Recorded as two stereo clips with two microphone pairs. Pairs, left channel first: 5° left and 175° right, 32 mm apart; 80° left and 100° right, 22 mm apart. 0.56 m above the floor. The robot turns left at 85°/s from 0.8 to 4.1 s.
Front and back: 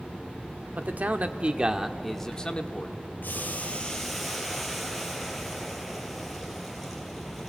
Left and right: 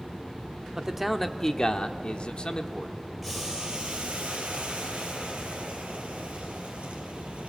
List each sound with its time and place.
0.8 s a man speaking: 165° right, 1.2 m; by 2.9 s 15° left, 1.2 m
3.2 s boiling: 10° right, 3.5 m; by 7.5 s 85° right, 3.5 m